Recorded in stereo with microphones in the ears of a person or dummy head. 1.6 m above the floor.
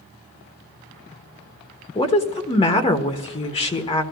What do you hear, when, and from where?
1.9 s a woman speaking: 20° left (ahead or behind), 1.1 m